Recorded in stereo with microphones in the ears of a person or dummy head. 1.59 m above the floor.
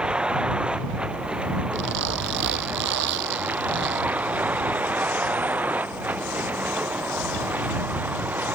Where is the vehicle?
5° right (ahead or behind).